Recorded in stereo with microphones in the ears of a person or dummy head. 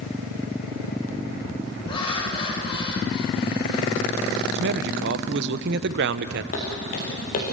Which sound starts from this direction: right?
A man speaking, at 4.5 s.